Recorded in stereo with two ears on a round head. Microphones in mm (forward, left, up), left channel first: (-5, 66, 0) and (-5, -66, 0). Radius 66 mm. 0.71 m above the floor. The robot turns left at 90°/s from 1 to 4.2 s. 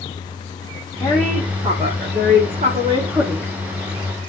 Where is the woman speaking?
30° left, 1.7 m; by 3.5 s 160° left, 1.7 m.